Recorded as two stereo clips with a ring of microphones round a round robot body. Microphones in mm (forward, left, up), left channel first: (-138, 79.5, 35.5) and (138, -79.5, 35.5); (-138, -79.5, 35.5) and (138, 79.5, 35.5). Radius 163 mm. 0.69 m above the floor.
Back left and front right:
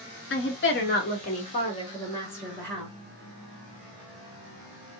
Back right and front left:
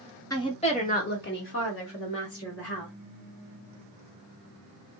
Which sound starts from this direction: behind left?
A woman speaking, at 0.3 s.